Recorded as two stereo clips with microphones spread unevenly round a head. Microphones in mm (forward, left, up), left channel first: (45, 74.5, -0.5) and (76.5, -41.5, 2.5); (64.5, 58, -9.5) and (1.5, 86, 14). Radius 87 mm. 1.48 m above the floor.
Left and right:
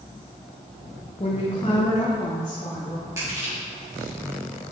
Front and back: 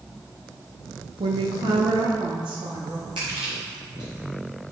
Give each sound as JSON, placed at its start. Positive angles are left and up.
{"t": 1.2, "sound": "a woman speaking", "azimuth_deg": 165, "distance_m": 0.9}
{"t": 3.2, "sound": "crushing", "azimuth_deg": -150, "distance_m": 2.5}